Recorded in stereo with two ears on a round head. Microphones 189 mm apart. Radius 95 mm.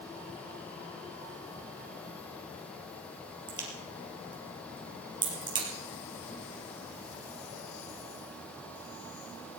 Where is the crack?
20° right (ahead or behind), 4 m.